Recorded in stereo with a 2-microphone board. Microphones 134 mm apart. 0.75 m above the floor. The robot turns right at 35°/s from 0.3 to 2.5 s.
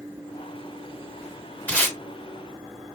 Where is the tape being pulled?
10° left (ahead or behind), 2 m; by 2.0 s 20° left (ahead or behind), 2 m.